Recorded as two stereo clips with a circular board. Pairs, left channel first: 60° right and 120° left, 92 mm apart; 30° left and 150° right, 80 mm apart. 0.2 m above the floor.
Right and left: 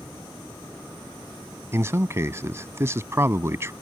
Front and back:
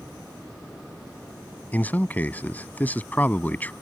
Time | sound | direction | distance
1.7 | a man speaking | 85° left | ?